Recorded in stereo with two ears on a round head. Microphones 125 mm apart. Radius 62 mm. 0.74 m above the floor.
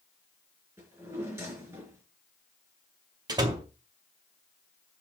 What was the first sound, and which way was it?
A drawer, 20° right (ahead or behind).